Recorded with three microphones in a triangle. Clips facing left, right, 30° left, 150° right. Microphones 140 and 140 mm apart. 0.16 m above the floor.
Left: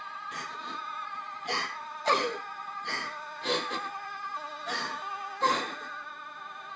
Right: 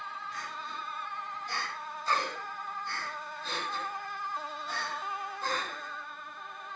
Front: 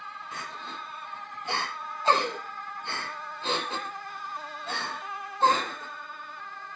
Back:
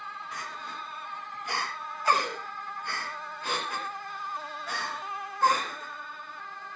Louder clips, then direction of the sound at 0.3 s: Left 1 dB, front 2 dB; 95° left.